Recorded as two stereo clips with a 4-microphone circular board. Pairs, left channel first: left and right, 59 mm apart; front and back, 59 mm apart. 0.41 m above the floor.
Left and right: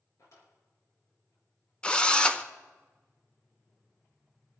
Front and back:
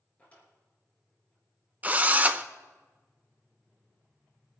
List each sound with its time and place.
0.2 s a drawer: 65° left, 4.5 m
1.8 s a drill: 150° left, 0.7 m